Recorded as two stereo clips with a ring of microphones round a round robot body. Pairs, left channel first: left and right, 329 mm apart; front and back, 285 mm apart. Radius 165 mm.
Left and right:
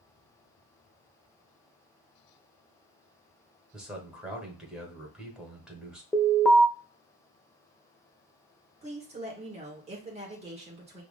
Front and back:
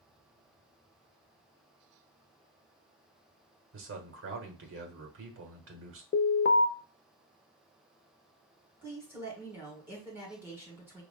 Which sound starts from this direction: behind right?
A woman speaking, at 8.8 s.